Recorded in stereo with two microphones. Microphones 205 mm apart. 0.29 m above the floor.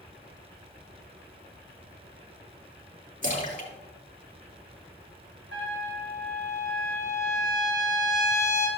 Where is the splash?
40° left (ahead or behind), 3.5 m.